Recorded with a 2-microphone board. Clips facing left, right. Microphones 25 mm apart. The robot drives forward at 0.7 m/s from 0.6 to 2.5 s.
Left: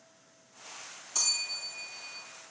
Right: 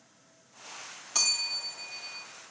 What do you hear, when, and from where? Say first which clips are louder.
1.1 s a bell: right 3 dB; 35° right (ahead or behind), 2 m; by 2.2 s 25° right (ahead or behind), 3 m